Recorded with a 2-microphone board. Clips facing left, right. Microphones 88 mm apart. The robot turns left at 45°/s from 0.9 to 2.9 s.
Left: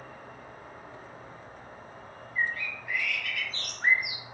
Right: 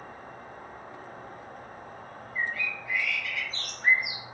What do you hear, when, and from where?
0.0 s an insect: 45° right, 1.1 m; by 4.3 s 135° right, 1.1 m
2.4 s a bird: 45° left (ahead or behind), 1.0 m; by 4.2 s 55° left (ahead or behind), 1.0 m